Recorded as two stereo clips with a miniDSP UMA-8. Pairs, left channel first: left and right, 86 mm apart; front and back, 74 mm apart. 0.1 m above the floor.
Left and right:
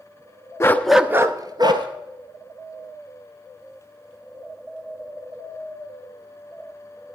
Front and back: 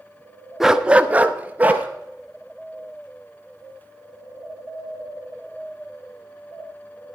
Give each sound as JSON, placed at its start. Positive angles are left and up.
{"t": 0.6, "sound": "a dog barking", "azimuth_deg": 100, "distance_m": 0.6}